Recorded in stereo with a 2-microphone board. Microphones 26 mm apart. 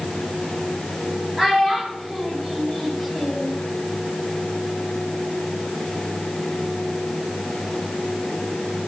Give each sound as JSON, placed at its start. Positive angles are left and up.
{"t": 1.4, "sound": "a child speaking", "side_deg": -15, "distance_m": 1.8}